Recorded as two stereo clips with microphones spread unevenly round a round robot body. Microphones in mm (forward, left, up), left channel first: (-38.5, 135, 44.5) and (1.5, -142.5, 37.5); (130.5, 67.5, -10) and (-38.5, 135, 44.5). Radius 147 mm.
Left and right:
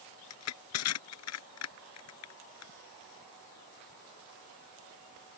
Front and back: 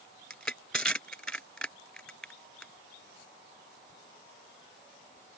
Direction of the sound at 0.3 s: 65° left.